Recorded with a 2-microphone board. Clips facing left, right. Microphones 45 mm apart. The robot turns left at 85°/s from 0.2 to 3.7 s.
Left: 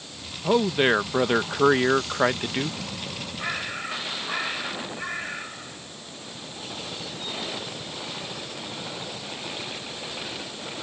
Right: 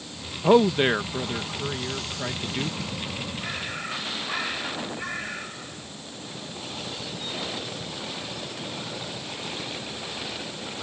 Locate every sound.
0.4 s a man speaking: 155° right; by 2.8 s 5° left
3.4 s a bird: 30° left (ahead or behind); by 9.2 s 5° left (ahead or behind)